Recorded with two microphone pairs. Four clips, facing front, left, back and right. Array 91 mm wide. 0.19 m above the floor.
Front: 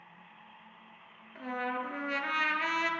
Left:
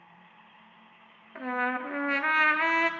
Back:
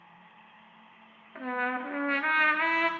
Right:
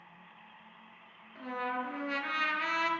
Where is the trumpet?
120° left, 0.5 m.